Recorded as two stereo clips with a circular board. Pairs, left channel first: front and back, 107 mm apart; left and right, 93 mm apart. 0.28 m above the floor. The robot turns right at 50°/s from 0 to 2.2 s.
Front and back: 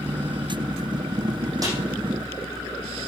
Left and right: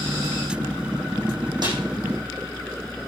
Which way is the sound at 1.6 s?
125° right.